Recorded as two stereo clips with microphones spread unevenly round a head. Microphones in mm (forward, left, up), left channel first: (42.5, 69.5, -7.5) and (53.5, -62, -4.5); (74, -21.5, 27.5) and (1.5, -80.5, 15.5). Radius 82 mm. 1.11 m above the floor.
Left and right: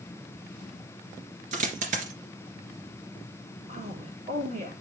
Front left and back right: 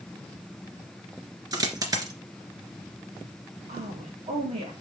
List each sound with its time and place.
1.5 s a dropped coin: 95° right, 1.9 m
3.7 s a woman speaking: 140° right, 3 m